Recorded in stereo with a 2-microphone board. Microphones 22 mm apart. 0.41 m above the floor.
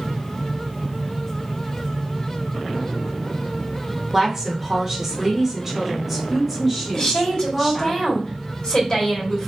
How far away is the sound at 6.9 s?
About 2 m.